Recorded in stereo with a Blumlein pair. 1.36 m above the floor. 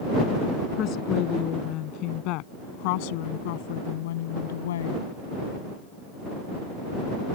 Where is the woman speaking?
35° left; by 5.0 s 60° left.